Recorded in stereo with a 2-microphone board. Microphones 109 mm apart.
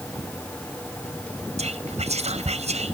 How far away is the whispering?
About 1.0 m.